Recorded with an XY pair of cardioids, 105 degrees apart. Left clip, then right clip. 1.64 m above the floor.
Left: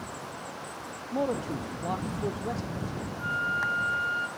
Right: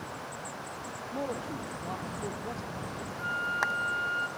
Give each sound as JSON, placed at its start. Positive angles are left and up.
{"t": 1.1, "sound": "a man speaking", "azimuth_deg": 40, "distance_m": 1.0}
{"t": 3.2, "sound": "a flute", "azimuth_deg": 5, "distance_m": 1.4}